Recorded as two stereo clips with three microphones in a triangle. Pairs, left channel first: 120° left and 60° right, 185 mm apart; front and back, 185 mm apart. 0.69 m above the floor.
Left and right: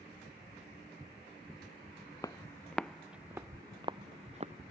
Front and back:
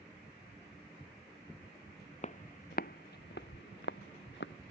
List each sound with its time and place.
2.2 s footsteps: 50° left; by 4.5 s 10° right